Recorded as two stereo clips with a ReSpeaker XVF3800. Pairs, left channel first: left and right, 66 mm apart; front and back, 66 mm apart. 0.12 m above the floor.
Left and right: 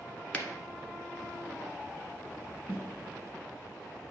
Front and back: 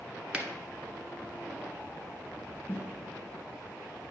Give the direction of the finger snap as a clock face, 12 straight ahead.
8 o'clock.